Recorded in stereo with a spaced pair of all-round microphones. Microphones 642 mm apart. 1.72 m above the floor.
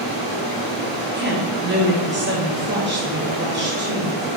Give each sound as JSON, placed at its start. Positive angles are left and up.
{"t": 0.0, "sound": "running water", "side_deg": 55, "distance_m": 2.5}
{"t": 1.1, "sound": "a woman speaking", "side_deg": -15, "distance_m": 1.0}